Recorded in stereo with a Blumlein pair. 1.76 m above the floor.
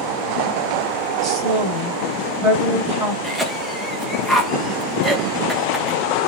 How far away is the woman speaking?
About 1.5 m.